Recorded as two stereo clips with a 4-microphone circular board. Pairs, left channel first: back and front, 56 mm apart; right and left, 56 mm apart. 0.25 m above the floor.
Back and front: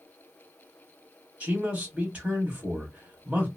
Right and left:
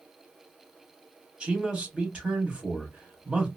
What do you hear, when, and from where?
1.4 s a man speaking: 40° left, 1.3 m